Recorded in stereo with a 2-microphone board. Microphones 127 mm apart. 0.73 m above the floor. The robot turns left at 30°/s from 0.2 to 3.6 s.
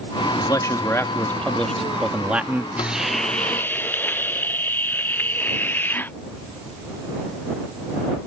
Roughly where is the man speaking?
Ahead left.